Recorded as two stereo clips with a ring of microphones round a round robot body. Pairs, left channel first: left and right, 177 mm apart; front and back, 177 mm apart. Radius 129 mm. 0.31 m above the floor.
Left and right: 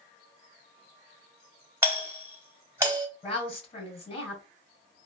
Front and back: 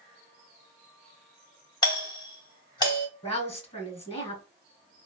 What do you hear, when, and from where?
1.8 s a doorbell: 30° right, 2.0 m
3.2 s a woman speaking: 45° left, 2 m